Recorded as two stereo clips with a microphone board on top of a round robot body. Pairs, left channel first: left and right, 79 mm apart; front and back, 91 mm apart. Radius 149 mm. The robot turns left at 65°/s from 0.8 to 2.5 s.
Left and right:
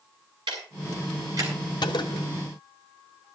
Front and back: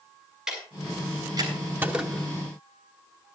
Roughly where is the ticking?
Right.